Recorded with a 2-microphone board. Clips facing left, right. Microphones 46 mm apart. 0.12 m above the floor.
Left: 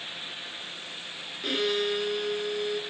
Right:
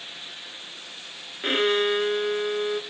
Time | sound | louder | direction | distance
1.4 | a violin | right 5 dB | 40° right (ahead or behind) | 0.7 m